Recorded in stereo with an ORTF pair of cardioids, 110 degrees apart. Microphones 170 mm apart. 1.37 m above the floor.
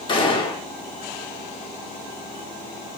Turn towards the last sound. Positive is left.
turn(degrees=30)